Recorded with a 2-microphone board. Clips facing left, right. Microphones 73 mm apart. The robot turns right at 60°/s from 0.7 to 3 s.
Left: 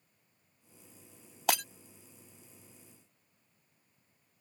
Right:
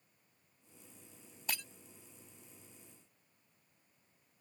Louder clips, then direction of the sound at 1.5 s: Left 12 dB; 75° left (ahead or behind).